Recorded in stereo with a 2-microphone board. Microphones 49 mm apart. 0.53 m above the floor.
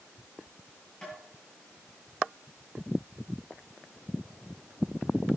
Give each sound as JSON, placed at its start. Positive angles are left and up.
{"t": 1.0, "sound": "tapping", "side_deg": 20, "distance_m": 8.0}